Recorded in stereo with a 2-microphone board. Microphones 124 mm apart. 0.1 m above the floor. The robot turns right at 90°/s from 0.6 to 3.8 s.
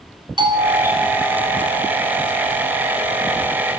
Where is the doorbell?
45° right, 3.5 m; by 2.0 s 80° left, 3.5 m.